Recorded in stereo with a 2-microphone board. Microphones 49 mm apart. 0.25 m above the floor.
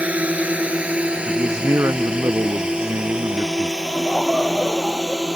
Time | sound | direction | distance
0.0 | a drone | 30° right (ahead or behind) | ?
1.3 | a man speaking | 85° right | ?
3.8 | laughter | 10° left (ahead or behind) | ?